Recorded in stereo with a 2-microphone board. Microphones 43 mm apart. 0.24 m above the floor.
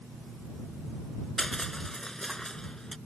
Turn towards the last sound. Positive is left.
turn(degrees=15)  # may be behind; listen again after turning